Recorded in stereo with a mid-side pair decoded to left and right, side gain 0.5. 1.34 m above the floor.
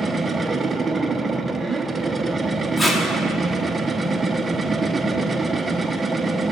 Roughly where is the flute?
No flute in this recording.